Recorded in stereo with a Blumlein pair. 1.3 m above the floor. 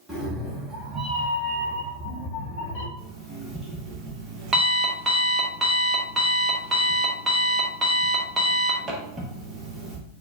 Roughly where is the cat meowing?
Ahead.